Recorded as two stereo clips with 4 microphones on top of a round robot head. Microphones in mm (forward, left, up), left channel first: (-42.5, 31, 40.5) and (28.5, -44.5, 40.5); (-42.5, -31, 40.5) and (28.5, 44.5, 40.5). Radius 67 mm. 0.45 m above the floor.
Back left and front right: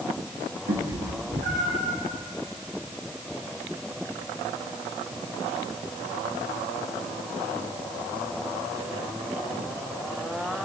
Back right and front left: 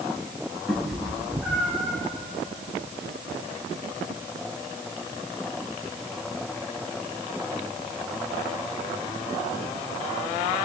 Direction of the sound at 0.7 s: 45° right.